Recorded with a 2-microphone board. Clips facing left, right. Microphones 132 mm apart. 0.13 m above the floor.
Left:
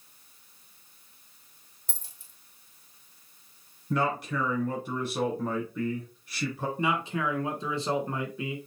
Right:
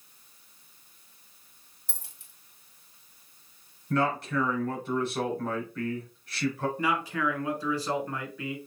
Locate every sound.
1.9 s a dropped coin: 65° right (ahead or behind), 1.6 m
3.9 s a man speaking: 5° left (ahead or behind), 2 m
6.8 s a man speaking: 25° left (ahead or behind), 1.1 m